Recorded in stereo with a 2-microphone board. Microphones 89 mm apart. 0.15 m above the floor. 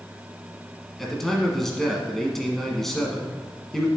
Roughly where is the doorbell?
I don't hear a doorbell.